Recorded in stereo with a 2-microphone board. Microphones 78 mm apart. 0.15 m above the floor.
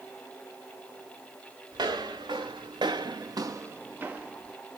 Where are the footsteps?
65° right (ahead or behind), 1.1 m; by 4.6 s 5° right (ahead or behind), 1.0 m.